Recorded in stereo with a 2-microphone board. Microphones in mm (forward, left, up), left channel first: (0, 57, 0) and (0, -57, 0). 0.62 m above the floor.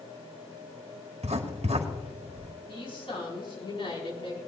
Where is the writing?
70° right (ahead or behind), 1.7 m.